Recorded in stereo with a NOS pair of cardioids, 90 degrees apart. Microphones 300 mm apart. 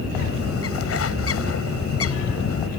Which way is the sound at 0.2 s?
50° left.